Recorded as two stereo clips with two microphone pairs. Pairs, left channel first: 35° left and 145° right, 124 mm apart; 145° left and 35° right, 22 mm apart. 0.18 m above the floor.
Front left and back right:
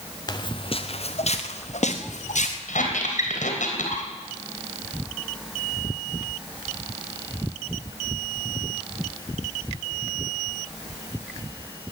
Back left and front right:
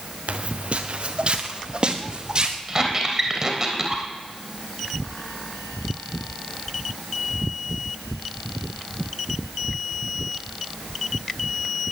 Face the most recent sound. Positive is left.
turn(degrees=35)